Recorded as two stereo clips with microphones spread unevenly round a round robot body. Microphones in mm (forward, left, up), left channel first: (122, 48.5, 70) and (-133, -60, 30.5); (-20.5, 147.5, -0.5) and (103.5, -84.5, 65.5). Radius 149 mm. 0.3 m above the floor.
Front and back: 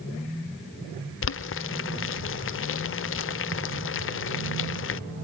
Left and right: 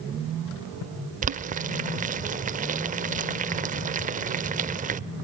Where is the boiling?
5° left, 0.5 m.